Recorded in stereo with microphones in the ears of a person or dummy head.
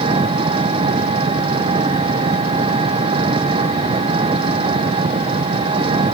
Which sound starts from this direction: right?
An engine running, at 0.0 s.